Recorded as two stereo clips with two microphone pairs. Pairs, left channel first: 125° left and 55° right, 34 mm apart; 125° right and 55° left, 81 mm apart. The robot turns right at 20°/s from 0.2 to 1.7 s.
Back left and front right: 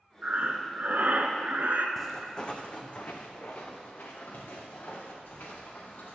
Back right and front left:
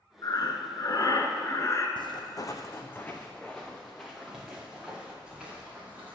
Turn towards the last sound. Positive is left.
turn(degrees=130)